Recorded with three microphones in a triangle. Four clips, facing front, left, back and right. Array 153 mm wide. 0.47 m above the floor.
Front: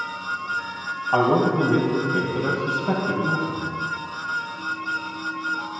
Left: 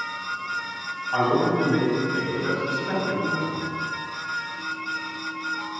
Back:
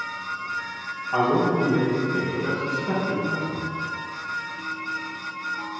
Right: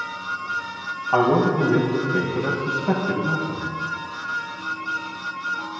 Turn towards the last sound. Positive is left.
turn(degrees=-50)